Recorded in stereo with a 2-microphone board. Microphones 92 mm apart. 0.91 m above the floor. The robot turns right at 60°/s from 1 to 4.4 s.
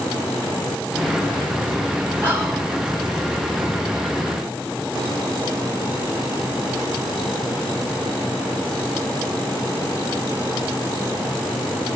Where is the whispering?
20° right (ahead or behind), 4.5 m; by 2.7 s 50° right (ahead or behind), 4.5 m.